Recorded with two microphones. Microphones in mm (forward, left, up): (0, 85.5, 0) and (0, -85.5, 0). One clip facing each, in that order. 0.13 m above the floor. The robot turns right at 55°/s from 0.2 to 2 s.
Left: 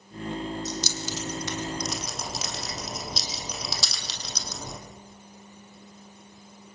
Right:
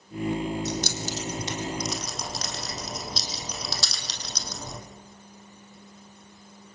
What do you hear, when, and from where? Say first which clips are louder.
0.7 s keys jangling: right 2 dB; 65° right (ahead or behind), 4 m; by 4.8 s 5° left (ahead or behind), 4 m